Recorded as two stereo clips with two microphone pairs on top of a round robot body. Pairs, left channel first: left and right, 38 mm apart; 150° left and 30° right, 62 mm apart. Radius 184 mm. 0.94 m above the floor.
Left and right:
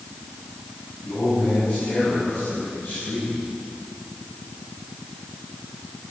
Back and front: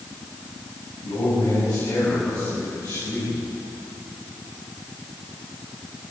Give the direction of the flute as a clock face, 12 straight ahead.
No flute in this recording.